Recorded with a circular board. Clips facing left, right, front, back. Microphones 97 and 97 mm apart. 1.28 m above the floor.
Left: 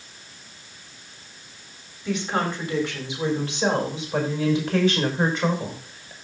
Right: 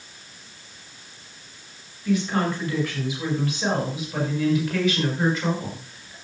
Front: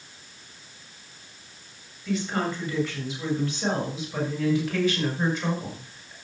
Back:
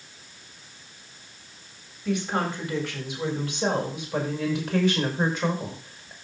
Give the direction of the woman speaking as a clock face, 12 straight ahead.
7 o'clock.